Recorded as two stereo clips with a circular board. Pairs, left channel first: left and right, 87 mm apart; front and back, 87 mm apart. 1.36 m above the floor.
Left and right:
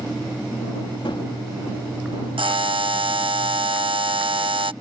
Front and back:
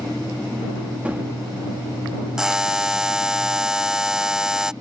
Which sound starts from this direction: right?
A buzzer, at 2.4 s.